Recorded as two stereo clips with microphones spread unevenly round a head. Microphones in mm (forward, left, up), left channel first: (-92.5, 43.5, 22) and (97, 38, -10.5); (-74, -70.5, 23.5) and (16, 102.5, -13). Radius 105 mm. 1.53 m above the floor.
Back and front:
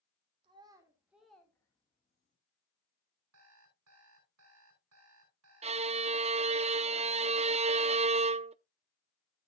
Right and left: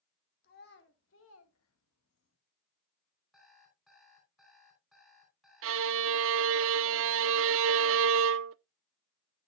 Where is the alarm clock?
30° right, 5 m.